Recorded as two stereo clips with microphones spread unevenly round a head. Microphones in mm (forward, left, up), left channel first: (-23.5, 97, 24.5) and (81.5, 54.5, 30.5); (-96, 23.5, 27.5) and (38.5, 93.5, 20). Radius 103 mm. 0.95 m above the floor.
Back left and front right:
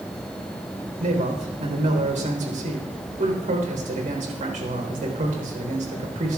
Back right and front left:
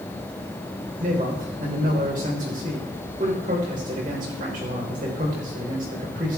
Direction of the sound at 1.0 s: 25° right.